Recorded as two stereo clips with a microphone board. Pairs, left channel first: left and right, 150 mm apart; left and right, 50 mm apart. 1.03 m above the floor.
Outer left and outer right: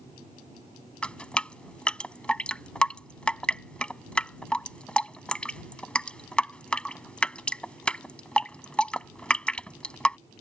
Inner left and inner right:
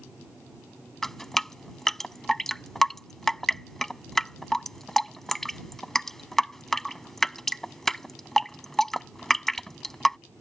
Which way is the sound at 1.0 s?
5° left (ahead or behind).